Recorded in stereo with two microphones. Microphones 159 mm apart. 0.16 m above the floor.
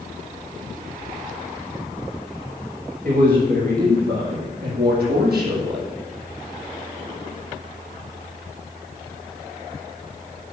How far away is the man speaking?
About 9 m.